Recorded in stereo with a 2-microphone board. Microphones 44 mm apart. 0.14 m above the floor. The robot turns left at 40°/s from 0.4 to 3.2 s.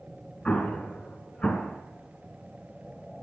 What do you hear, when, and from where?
0.5 s an explosion: 30° left (ahead or behind), 1.7 m; by 1.8 s 25° left (ahead or behind), 1.7 m